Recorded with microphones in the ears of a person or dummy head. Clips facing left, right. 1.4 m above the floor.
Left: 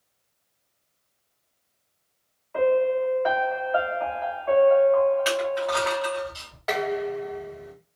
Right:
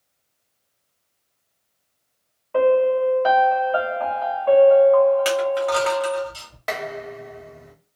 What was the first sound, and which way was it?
A piano, 60° right (ahead or behind).